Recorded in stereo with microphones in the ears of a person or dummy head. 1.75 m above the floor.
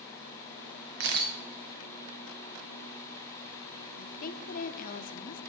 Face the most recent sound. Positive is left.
turn(degrees=50)  # may be behind; listen again after turning